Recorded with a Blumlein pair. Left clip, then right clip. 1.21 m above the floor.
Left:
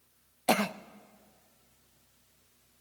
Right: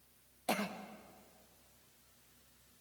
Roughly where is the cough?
Ahead left.